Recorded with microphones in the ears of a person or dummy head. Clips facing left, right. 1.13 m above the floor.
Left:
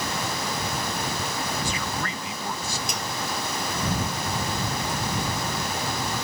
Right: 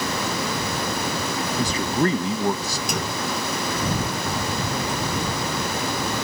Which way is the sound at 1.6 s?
30° right (ahead or behind).